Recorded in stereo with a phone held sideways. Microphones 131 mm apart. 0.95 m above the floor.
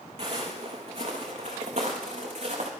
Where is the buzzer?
No buzzer in this recording.